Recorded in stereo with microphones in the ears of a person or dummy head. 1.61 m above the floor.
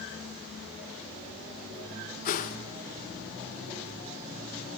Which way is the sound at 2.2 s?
45° left (ahead or behind).